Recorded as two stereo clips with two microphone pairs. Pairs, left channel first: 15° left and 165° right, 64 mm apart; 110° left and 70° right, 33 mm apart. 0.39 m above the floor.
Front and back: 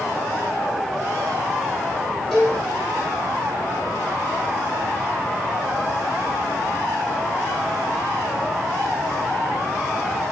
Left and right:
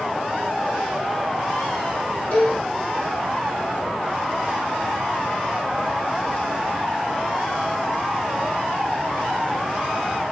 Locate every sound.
2.3 s a cowbell: 100° left, 1.3 m